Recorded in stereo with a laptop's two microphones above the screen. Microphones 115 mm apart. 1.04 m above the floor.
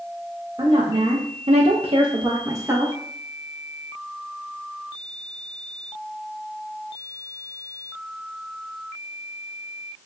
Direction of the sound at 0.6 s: 60° right (ahead or behind).